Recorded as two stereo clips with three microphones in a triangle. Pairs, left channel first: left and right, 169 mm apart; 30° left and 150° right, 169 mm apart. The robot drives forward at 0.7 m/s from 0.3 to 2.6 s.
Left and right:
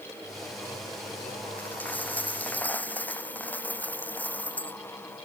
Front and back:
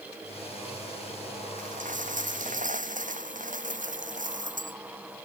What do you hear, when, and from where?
1.6 s a dropped coin: 170° left